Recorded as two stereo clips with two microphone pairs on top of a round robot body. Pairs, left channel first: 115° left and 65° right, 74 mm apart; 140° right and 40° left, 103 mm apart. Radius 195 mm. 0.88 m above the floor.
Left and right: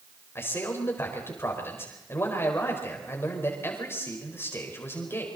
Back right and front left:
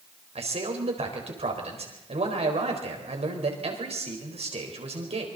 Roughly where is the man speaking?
Ahead left.